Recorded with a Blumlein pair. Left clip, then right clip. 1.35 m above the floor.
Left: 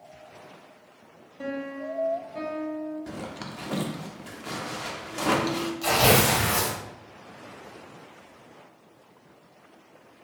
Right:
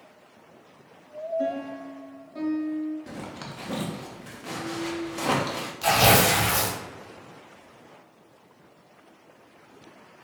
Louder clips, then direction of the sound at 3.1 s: Left 1 dB; 5° left.